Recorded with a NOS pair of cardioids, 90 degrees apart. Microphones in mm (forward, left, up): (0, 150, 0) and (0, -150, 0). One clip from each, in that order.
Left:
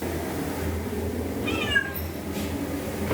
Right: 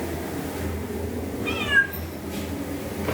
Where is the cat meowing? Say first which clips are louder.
Right 4 dB; 40° right, 6 m.